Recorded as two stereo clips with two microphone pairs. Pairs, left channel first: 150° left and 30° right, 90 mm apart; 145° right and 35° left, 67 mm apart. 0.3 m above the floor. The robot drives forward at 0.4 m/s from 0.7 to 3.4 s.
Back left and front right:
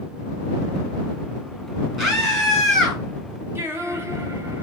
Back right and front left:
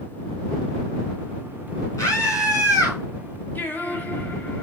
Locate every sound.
2.0 s a scream: 120° right, 4 m; by 3.0 s 125° right, 4.5 m
3.5 s singing: 90° right, 1.4 m